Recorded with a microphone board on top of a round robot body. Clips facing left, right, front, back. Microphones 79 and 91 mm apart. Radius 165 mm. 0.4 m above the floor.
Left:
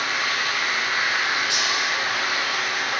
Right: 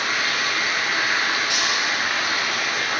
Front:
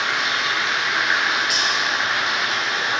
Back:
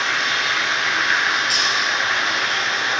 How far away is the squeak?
I don't hear a squeak.